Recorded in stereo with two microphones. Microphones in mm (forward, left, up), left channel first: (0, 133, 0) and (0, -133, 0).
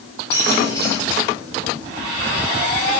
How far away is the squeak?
About 3.5 m.